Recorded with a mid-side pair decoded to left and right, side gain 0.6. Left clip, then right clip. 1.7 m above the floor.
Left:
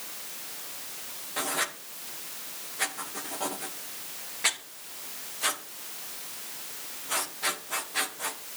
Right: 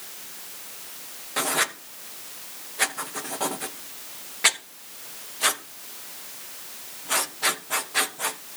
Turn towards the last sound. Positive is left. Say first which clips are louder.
# right 6 dB
turn(degrees=-35)